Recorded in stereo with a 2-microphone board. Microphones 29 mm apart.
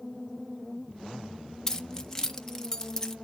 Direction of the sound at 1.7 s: 15° left (ahead or behind).